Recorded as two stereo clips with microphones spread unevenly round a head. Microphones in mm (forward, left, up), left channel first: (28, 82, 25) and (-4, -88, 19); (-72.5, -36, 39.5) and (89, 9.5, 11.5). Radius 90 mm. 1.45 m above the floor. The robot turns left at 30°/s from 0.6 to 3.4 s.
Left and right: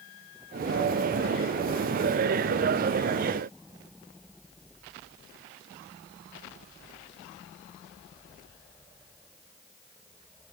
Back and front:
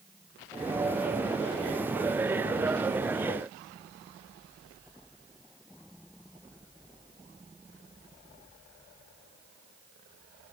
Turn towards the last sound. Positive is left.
No sound to turn to.